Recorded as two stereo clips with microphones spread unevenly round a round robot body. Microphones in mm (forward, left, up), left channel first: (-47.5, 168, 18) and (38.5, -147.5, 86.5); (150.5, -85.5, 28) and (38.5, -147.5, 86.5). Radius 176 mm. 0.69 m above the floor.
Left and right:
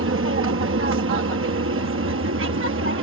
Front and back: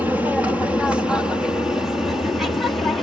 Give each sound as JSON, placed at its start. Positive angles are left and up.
{"t": 0.0, "sound": "an aircraft", "azimuth_deg": -45}